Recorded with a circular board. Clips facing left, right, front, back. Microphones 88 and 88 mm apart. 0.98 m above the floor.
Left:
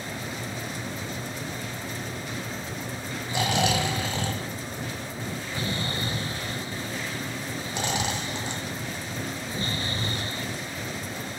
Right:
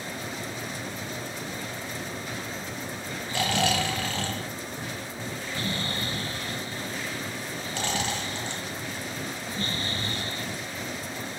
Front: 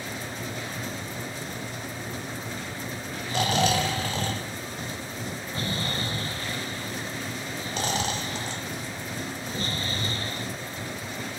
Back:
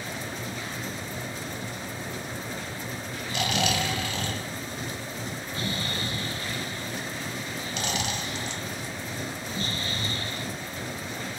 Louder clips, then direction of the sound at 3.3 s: Left 1 dB, front 4 dB; 25° left.